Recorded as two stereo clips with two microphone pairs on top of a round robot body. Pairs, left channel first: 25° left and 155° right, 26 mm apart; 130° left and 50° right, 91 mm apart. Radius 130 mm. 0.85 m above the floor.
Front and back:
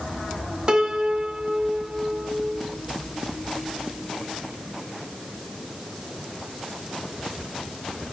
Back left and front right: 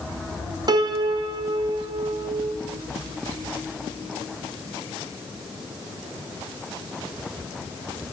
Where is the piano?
95° right, 0.7 m.